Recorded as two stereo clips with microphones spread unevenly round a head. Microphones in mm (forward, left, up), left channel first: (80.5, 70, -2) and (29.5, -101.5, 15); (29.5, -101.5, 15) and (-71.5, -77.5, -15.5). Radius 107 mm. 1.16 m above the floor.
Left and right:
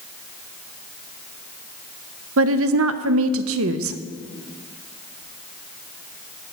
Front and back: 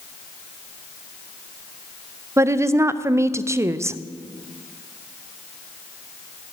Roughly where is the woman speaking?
Behind right.